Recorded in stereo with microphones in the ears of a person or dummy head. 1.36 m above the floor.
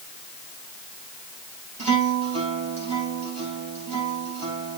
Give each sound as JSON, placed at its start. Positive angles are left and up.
{"t": 1.8, "sound": "a guitar", "side_deg": -35, "distance_m": 4.5}